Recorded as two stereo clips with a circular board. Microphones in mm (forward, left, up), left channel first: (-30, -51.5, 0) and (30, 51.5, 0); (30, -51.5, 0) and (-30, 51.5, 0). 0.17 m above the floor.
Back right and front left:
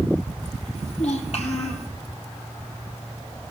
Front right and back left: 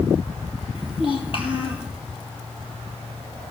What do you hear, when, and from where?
0.8 s a child speaking: 105° right, 3 m